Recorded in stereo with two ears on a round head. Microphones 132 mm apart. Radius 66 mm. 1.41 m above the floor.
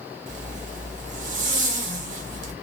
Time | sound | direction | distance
0.3 | a zipper | 55° right (ahead or behind) | 0.8 m